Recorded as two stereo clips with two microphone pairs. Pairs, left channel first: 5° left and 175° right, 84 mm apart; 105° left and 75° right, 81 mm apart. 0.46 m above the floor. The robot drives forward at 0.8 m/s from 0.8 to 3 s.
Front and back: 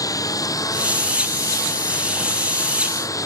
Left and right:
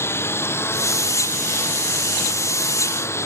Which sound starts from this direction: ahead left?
A lawn mower, at 0.0 s.